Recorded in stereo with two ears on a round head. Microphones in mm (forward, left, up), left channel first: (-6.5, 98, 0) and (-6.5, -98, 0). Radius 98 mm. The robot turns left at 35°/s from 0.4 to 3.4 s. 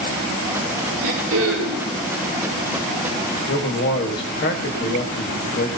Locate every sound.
1.0 s throat clearing: 90° right, 7 m; by 1.9 s 120° right, 7 m
3.5 s a man speaking: 45° left (ahead or behind), 1.6 m